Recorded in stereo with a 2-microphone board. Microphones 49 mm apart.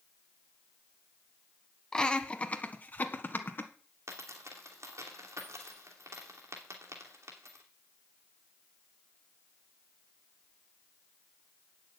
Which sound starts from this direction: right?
A dropped coin, at 4.1 s.